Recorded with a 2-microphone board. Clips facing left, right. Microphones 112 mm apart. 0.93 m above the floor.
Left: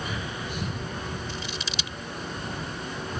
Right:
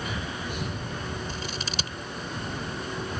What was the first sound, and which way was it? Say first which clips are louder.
Scissors: right 1 dB; 45° right (ahead or behind).